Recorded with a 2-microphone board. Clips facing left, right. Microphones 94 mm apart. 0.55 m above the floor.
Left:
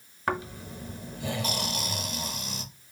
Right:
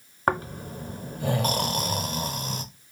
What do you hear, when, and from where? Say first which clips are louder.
0.3 s snoring: right 5 dB; 45° right (ahead or behind), 0.6 m